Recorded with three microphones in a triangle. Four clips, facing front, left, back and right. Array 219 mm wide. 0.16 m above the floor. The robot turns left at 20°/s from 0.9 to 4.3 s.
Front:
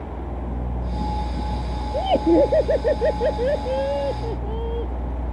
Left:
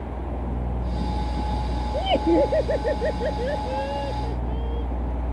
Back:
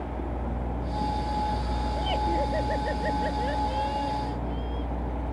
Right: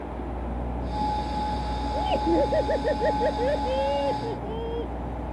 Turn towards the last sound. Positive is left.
turn(degrees=-25)